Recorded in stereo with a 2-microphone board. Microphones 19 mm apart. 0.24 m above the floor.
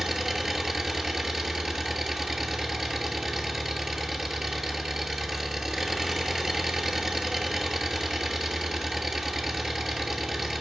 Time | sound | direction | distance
0.0 | an engine running | 15° right (ahead or behind) | 1.2 m